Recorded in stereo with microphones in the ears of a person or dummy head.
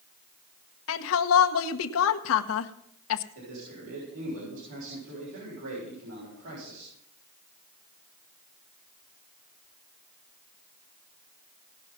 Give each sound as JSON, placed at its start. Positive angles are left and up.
{"t": 0.9, "sound": "a woman speaking", "side_deg": 70, "distance_m": 1.0}
{"t": 3.4, "sound": "a man speaking", "side_deg": -90, "distance_m": 6.5}